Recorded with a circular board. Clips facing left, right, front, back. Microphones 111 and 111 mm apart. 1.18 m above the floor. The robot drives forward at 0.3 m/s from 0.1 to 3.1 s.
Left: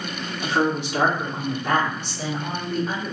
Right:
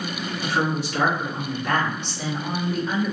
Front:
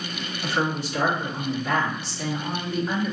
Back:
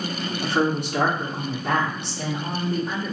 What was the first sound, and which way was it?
A woman speaking, 160° left.